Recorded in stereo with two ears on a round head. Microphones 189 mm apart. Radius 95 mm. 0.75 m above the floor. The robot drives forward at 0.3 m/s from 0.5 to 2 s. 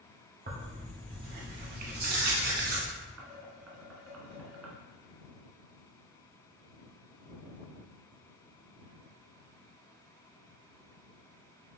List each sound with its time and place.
0.5 s tearing paper: 40° right (ahead or behind), 1.1 m; by 2.8 s 45° right (ahead or behind), 1.0 m
3.2 s dishes clattering: 80° right, 1.1 m